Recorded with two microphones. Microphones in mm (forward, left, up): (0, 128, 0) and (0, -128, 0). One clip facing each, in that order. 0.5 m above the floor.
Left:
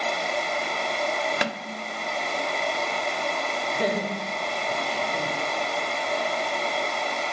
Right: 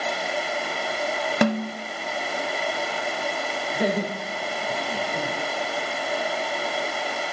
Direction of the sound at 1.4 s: 55° right (ahead or behind).